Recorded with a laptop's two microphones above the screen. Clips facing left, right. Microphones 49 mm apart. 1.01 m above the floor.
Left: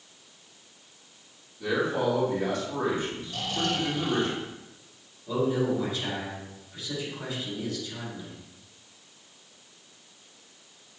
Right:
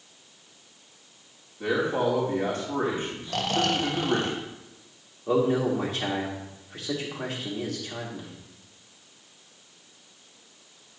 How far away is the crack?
I don't hear a crack.